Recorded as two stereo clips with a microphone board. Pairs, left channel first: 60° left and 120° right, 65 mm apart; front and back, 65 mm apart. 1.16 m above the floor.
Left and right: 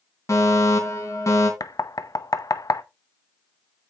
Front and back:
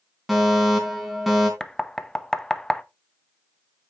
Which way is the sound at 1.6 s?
80° left.